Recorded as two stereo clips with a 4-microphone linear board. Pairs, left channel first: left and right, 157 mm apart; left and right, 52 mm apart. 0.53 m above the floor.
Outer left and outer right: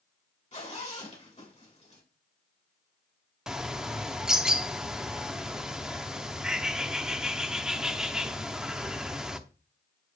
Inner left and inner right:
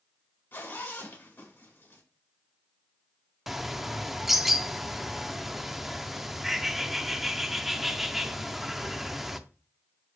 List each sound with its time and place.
0.5 s a zipper: 50° left (ahead or behind), 2 m
3.5 s a bird: 5° right (ahead or behind), 0.6 m